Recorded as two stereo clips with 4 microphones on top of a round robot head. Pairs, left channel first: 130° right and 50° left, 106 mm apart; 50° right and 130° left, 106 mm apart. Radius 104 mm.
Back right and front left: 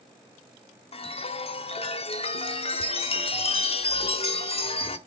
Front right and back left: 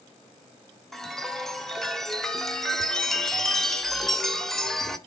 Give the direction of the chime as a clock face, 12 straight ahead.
4 o'clock.